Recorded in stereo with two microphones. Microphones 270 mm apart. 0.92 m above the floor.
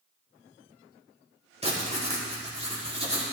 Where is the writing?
20° right (ahead or behind), 1.9 m.